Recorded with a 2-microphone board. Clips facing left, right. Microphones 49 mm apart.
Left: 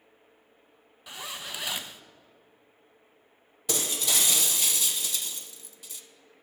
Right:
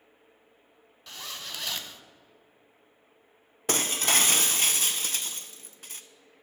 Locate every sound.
1.1 s a zipper: 15° left (ahead or behind), 0.5 m
3.7 s breaking glass: 45° right (ahead or behind), 0.5 m